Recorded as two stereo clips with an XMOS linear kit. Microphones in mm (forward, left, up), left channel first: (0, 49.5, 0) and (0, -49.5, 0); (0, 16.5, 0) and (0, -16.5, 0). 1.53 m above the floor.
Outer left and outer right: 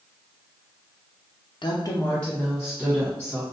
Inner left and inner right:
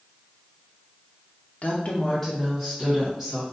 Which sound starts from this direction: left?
A woman speaking, at 1.6 s.